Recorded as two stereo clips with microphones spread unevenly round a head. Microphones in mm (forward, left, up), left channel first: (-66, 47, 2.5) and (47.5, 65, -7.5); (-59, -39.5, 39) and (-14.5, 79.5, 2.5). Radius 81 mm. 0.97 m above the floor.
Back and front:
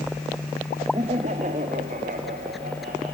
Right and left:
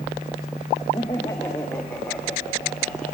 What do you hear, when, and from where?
0.9 s laughter: 40° right, 1.1 m; by 3.1 s 25° right, 3.5 m